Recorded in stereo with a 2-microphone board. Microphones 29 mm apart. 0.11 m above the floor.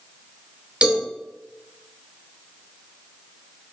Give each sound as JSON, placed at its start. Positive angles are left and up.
{"t": 0.8, "sound": "a cowbell", "side_deg": -40, "distance_m": 1.0}